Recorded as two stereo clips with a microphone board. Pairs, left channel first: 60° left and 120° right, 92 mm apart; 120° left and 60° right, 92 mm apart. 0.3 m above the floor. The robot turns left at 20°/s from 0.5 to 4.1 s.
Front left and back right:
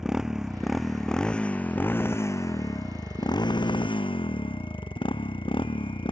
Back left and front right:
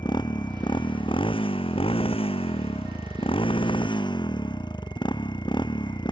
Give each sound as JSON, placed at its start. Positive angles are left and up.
{"t": 0.0, "sound": "a motorcycle", "azimuth_deg": 155}